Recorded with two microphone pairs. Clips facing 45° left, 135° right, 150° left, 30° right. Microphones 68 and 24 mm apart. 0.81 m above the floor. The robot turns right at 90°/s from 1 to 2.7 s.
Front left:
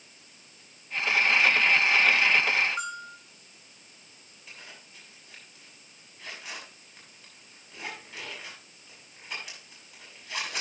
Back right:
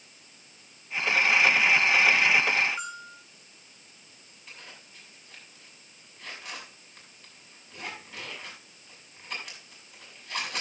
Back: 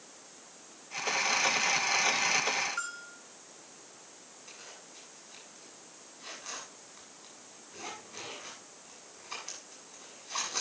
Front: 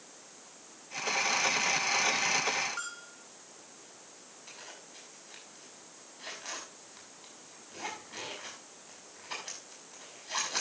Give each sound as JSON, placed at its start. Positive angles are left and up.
{"t": 2.8, "sound": "a bell", "azimuth_deg": 25, "distance_m": 7.0}
{"t": 4.5, "sound": "a zipper", "azimuth_deg": -40, "distance_m": 6.0}